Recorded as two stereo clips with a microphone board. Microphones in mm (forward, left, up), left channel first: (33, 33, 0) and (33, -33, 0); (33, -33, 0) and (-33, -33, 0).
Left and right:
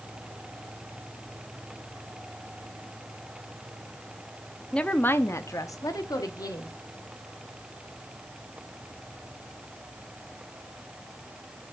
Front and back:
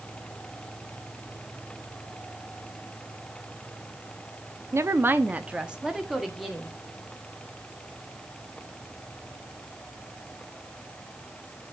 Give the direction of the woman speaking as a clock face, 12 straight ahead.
7 o'clock.